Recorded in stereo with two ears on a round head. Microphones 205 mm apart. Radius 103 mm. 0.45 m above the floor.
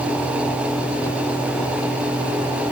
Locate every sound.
Only background noise.